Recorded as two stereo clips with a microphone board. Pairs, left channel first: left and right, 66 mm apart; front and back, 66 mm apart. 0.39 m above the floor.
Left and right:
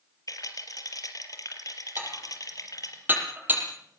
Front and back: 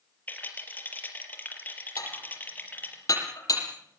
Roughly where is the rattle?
Ahead left.